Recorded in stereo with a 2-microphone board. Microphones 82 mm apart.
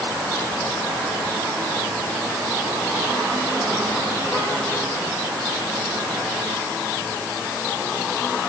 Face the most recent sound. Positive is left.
No sound to turn to.